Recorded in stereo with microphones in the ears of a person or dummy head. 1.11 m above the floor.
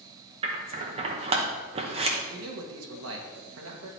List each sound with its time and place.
0.4 s scissors: 30° right (ahead or behind), 0.9 m
2.3 s a man speaking: 70° right (ahead or behind), 1.3 m